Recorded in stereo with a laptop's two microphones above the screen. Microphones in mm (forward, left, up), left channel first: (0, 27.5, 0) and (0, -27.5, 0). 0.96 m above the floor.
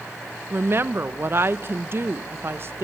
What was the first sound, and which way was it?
A woman speaking, 45° right (ahead or behind).